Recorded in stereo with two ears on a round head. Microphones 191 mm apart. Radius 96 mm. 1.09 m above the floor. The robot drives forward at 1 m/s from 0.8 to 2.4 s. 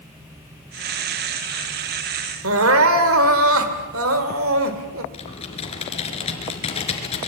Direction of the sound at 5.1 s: 30° left (ahead or behind).